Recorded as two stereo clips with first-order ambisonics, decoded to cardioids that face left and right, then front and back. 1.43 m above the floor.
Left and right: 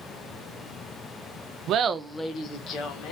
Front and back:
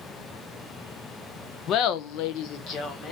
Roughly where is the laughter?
Ahead right.